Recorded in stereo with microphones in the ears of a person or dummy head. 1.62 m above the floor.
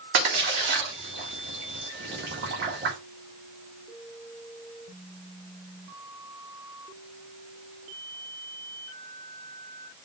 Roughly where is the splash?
Right.